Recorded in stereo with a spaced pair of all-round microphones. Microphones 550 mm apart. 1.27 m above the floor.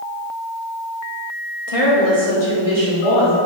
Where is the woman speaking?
80° left, 1.6 m; by 3.4 s 85° left, 2.5 m.